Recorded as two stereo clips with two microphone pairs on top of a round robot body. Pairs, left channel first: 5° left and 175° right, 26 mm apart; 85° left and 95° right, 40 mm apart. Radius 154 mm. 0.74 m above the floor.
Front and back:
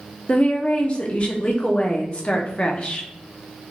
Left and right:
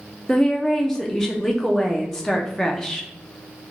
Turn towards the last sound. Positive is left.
turn(degrees=20)